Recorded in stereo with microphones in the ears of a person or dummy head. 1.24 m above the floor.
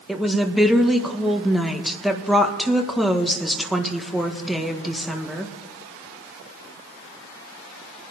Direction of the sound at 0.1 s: Centre (ahead or behind).